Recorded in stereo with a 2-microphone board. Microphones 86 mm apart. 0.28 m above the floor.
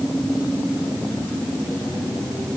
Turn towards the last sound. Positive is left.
No sound to turn to.